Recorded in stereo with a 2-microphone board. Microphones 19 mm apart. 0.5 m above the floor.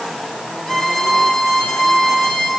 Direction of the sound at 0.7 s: 35° left (ahead or behind).